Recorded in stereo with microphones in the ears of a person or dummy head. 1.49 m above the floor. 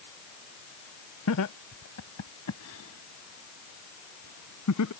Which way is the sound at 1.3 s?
90° left.